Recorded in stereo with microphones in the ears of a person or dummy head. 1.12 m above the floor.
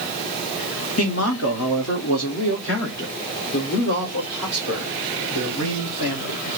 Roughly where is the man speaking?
Left.